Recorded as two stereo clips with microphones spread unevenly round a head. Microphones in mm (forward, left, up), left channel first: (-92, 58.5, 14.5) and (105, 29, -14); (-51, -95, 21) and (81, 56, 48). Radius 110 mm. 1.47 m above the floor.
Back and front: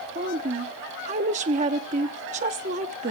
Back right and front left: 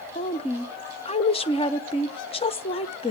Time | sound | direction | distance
0.1 | a woman speaking | 65° right | 0.6 m